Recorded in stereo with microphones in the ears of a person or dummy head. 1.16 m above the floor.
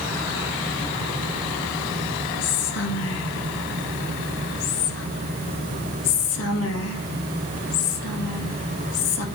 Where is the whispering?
85° left, 1.6 m.